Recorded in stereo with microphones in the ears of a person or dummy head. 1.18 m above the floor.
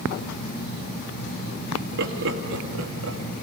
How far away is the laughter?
About 2.5 m.